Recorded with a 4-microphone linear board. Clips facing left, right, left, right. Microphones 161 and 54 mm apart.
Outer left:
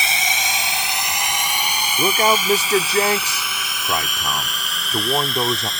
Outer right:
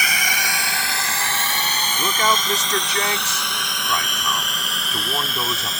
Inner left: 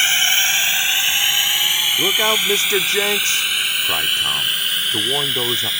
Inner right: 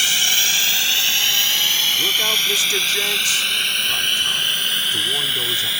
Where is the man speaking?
35° left (ahead or behind).